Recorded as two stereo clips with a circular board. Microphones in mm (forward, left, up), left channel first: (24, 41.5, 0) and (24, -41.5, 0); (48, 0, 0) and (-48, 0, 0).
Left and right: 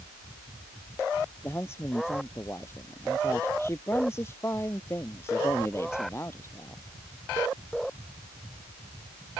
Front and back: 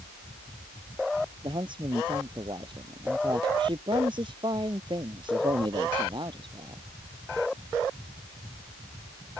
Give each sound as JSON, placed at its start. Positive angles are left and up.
{"t": 1.4, "sound": "a man speaking", "azimuth_deg": 145}